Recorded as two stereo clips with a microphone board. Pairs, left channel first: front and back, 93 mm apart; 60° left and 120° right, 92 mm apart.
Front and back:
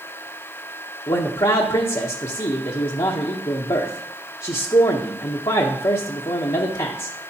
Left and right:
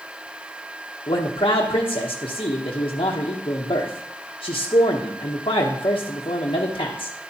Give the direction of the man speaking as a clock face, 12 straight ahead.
11 o'clock.